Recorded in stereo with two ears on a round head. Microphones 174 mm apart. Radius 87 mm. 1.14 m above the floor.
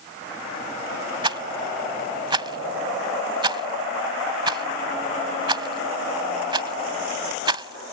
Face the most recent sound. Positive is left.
turn(degrees=-25)  # may be behind; listen again after turning